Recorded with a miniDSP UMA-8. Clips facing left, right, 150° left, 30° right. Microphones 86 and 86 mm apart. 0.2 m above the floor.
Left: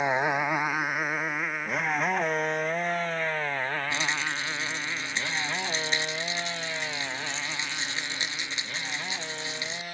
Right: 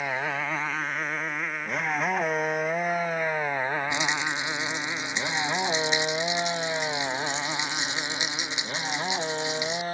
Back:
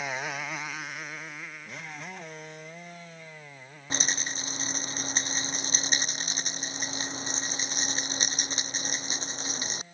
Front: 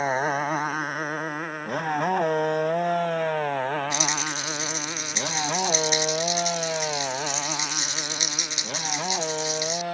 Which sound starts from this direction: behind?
A rattle, at 3.9 s.